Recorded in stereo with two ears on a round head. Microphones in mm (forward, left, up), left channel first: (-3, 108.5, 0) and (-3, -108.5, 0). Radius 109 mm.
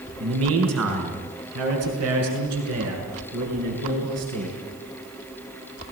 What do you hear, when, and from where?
0.2 s a man speaking: 65° right (ahead or behind), 4.5 m; by 4.6 s 75° right (ahead or behind), 7 m